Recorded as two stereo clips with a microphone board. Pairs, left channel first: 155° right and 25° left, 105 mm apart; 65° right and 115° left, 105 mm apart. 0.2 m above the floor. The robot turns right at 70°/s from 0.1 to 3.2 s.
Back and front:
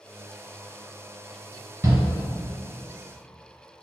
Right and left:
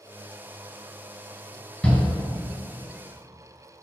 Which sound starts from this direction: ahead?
A shout, at 1.8 s.